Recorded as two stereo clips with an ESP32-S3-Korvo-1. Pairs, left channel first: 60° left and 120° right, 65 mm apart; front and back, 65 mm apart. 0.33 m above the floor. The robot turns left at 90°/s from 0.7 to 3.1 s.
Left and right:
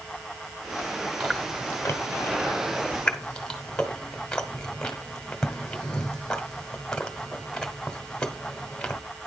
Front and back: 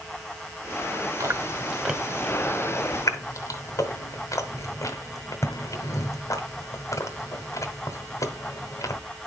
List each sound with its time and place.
1.2 s chewing: 155° left, 1.1 m; by 9.0 s 15° right, 1.1 m